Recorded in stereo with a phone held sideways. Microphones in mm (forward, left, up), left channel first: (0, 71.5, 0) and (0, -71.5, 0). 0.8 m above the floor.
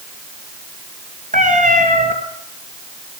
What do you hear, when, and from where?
1.3 s a cat meowing: 65° right (ahead or behind), 4 m